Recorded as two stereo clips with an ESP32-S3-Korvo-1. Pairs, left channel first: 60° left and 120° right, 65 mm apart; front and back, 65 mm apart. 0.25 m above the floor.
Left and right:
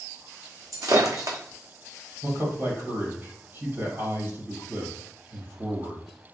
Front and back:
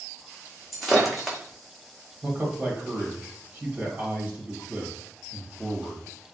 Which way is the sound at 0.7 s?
90° right.